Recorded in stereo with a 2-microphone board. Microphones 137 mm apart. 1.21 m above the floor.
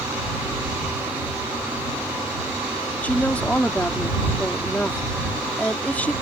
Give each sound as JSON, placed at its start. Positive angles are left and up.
{"t": 3.0, "sound": "a woman speaking", "side_deg": 10}